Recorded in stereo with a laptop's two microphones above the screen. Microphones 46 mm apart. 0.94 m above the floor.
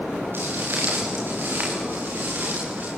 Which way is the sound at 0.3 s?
50° right (ahead or behind).